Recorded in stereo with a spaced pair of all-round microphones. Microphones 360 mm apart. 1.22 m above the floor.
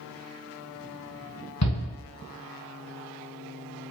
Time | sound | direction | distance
1.6 | a shout | 45° left (ahead or behind) | 1.1 m